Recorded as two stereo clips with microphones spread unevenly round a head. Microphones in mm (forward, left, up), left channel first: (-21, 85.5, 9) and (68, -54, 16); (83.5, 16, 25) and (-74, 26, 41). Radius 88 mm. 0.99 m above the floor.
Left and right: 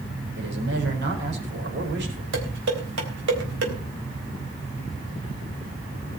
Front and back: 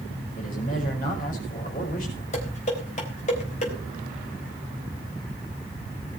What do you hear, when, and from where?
0.4 s a man speaking: 40° right, 4.5 m
2.3 s dishes clattering: 55° right, 4 m